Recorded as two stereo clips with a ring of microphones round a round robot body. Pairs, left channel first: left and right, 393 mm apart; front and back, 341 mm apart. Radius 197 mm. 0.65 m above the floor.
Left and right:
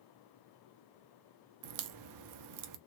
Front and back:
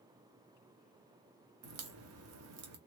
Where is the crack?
130° right, 0.5 m.